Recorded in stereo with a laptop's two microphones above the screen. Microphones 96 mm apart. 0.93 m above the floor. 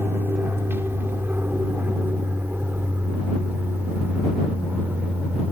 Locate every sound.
0.0 s an aircraft: 25° right (ahead or behind); by 5.5 s 20° right (ahead or behind)